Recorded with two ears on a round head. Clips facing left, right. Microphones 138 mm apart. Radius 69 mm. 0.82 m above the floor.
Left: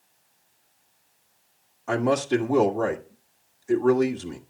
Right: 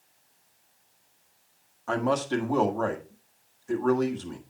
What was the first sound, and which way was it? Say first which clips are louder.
A man speaking: left 4 dB; 15° left (ahead or behind).